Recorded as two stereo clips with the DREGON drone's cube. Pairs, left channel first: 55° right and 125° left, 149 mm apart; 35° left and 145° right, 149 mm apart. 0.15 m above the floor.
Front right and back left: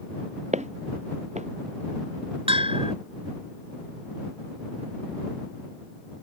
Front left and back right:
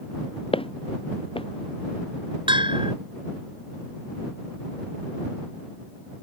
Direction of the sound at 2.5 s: 165° left.